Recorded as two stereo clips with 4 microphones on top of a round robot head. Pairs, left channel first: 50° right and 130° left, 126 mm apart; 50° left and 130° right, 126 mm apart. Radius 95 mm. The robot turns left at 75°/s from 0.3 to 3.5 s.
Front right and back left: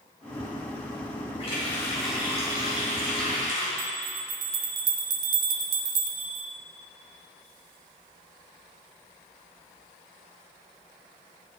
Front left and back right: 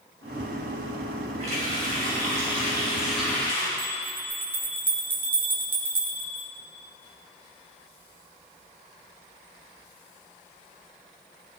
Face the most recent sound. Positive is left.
turn(degrees=155)